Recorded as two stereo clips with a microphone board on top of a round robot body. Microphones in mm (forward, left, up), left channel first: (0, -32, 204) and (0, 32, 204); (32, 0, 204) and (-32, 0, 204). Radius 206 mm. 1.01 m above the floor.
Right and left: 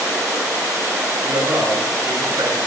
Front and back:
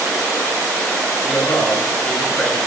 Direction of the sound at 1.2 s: 80° left.